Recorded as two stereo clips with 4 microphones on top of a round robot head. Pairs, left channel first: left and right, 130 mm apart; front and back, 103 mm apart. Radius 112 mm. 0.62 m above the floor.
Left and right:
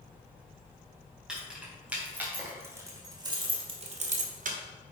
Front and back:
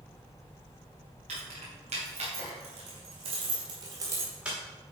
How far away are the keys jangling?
About 3.5 m.